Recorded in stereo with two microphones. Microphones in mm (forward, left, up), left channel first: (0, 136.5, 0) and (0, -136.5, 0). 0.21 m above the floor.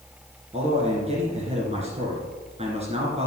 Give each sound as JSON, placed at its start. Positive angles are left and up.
{"t": 0.5, "sound": "a man speaking", "side_deg": -25, "distance_m": 2.5}